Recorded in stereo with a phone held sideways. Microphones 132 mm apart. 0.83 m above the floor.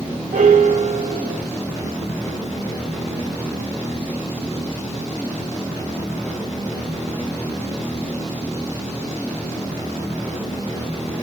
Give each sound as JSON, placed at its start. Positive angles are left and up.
{"t": 0.3, "sound": "a piano", "side_deg": -75, "distance_m": 0.5}